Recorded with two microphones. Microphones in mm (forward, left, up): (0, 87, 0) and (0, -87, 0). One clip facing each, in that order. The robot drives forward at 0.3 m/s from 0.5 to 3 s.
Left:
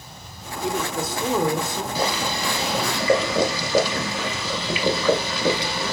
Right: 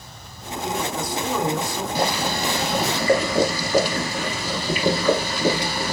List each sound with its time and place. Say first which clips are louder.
0.6 s a man speaking: left 1 dB; 25° left (ahead or behind), 0.6 m
1.9 s boiling: right 2 dB; 55° right (ahead or behind), 0.7 m; by 5.9 s 50° right (ahead or behind), 0.7 m